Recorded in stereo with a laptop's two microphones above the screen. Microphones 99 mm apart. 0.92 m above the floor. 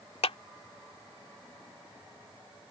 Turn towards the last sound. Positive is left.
turn(degrees=80)